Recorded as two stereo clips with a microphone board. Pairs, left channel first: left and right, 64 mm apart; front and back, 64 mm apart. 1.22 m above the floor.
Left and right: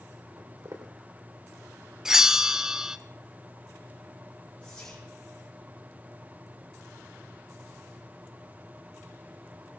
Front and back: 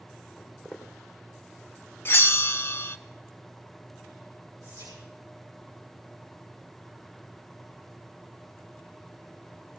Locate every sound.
0.4 s footsteps: 105° right, 3.5 m
2.0 s a bell: 15° right, 0.6 m
4.6 s whispering: 165° left, 4.5 m